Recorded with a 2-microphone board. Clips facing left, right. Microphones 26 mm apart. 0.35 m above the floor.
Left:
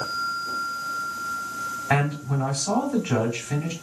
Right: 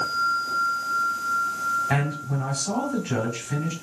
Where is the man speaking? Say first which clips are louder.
Left 2 dB; 20° left (ahead or behind), 2 m.